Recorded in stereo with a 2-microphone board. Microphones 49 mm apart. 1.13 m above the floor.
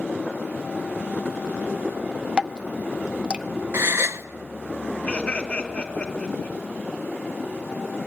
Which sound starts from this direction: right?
A gasp, at 3.7 s.